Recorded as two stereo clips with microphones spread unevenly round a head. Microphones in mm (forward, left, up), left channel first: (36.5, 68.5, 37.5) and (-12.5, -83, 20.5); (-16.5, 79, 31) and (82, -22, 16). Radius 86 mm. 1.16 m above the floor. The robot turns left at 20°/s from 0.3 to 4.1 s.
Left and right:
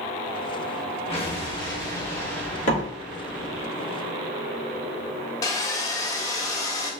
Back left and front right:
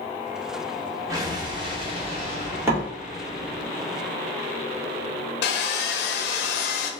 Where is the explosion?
20° left, 1.2 m; by 3.7 s 30° right, 1.2 m.